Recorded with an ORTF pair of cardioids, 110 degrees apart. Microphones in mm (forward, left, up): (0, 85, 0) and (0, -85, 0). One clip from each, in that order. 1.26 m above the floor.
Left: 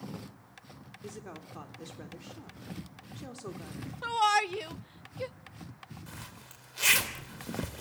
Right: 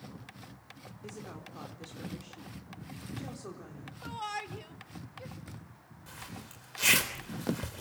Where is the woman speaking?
25° left, 4 m.